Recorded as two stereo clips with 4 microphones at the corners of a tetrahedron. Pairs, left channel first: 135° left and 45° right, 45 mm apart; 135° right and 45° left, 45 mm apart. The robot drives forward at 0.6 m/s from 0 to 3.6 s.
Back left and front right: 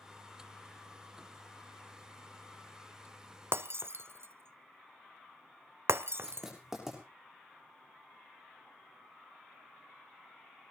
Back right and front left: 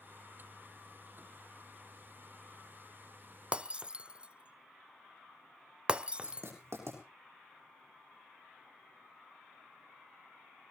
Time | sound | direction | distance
3.5 | breaking glass | 20° right | 0.8 m
6.2 | writing | 35° left | 7 m